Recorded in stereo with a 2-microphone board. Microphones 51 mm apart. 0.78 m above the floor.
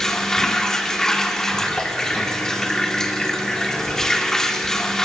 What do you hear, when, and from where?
0.0 s running water: 10° left (ahead or behind), 1.9 m